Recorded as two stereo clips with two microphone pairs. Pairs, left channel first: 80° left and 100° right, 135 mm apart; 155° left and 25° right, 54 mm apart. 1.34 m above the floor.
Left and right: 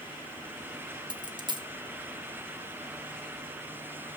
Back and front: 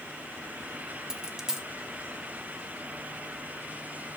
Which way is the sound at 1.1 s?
100° right.